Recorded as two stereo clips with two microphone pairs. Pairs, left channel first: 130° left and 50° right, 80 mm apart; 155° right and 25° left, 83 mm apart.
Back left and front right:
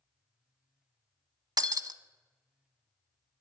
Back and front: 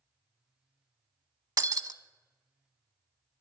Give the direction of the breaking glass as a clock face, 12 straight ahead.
1 o'clock.